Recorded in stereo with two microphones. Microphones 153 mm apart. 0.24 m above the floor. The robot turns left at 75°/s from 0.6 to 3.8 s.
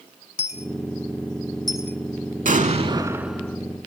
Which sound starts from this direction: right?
An explosion, at 2.5 s.